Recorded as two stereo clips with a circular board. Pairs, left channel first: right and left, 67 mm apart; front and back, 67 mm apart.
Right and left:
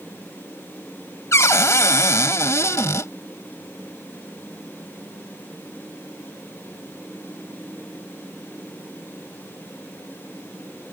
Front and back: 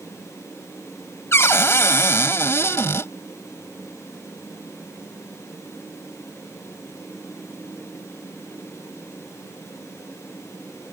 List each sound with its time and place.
1.3 s a cupboard door: 50° right